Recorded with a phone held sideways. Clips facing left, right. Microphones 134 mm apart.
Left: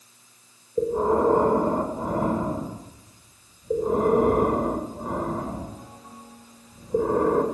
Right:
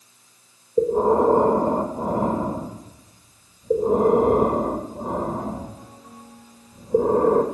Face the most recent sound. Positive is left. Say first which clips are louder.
# right 4 dB
turn(degrees=-25)  # may be behind; listen again after turning